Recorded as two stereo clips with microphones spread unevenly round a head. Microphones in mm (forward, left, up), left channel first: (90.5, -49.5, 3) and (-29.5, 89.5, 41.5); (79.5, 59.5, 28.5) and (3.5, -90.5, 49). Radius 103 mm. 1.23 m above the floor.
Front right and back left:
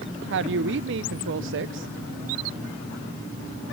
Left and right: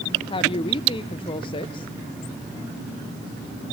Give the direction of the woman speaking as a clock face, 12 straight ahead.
8 o'clock.